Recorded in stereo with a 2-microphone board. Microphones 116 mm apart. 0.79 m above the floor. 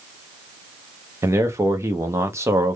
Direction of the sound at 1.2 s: 25° right (ahead or behind).